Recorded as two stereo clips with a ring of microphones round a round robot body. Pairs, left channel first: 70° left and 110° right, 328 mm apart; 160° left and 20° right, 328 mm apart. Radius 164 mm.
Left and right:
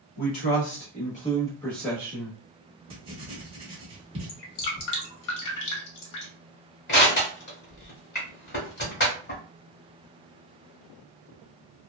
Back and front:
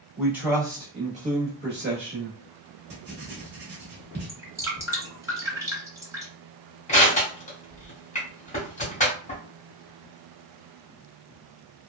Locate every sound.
0.2 s a man speaking: 65° left, 1.1 m; by 2.4 s 45° right, 1.0 m
2.9 s writing: 50° right, 0.9 m
4.3 s dripping: 60° left, 0.9 m
6.9 s crushing: 100° left, 1.3 m